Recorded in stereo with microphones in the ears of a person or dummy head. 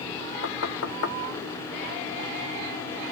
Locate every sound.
0.4 s knocking: 80° left, 1.0 m